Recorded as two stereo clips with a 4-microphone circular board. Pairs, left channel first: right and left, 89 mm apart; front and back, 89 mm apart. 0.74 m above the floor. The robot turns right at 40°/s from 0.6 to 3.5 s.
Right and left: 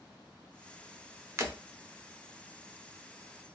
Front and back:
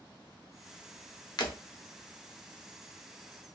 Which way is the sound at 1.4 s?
35° left.